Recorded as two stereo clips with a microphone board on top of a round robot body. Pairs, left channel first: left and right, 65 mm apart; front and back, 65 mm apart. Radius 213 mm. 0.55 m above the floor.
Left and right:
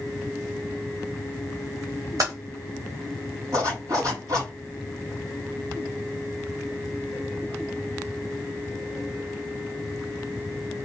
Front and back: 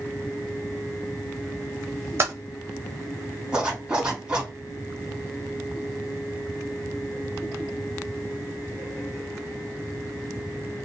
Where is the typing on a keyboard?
130° right, 0.6 m.